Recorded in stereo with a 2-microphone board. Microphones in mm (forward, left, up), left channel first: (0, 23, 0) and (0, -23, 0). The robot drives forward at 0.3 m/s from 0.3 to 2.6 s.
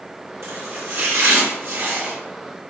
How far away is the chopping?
About 1.3 m.